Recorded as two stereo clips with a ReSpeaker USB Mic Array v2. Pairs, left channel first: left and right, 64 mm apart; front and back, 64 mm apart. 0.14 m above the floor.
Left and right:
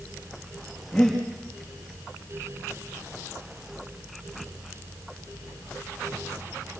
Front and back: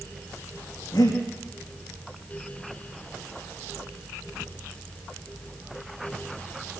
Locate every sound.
0.9 s breathing: 5° left, 7 m